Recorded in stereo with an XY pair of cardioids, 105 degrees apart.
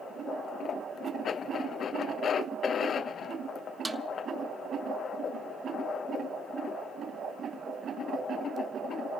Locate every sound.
3.9 s a snare drum: 15° right, 0.9 m